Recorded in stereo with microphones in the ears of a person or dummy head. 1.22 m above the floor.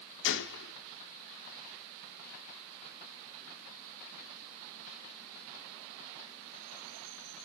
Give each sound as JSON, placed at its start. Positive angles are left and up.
{"t": 0.2, "sound": "a gunshot", "side_deg": 55, "distance_m": 1.0}